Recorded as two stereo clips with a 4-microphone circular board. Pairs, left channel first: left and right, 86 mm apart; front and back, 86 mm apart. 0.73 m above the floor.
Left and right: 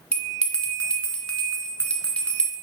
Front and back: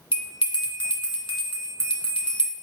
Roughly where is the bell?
Ahead.